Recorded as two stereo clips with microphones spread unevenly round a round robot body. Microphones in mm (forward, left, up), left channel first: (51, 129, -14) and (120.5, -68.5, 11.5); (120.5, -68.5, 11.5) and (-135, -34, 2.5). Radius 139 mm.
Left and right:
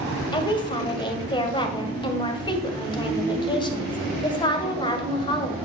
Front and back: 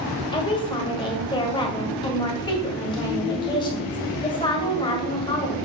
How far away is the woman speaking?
About 1.6 m.